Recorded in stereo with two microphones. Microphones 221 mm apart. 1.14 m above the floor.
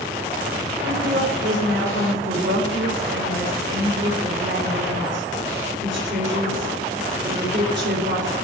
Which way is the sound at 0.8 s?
55° right (ahead or behind).